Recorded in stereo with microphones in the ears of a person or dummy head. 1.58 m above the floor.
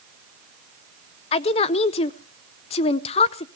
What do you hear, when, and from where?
1.3 s a woman speaking: 35° left (ahead or behind), 0.7 m